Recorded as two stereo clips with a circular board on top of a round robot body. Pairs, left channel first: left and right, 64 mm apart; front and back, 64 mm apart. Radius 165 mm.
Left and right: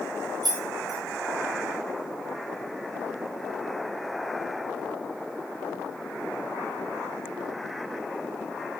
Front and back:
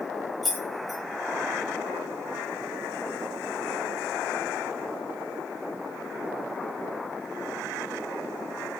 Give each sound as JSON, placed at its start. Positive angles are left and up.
{"t": 0.4, "sound": "keys jangling", "azimuth_deg": -90, "distance_m": 1.2}